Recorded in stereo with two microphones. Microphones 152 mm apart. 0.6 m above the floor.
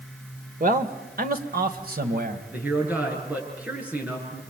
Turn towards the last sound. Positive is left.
turn(degrees=-10)  # may be behind; listen again after turning